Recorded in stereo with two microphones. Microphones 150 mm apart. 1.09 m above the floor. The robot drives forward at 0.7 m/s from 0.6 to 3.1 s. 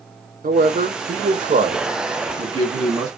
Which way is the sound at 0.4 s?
70° right (ahead or behind).